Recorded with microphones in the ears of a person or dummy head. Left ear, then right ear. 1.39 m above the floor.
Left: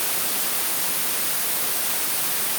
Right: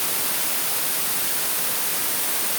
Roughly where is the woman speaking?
I don't hear a woman speaking.